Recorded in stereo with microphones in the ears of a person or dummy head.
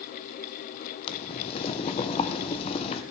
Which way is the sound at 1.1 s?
30° left (ahead or behind).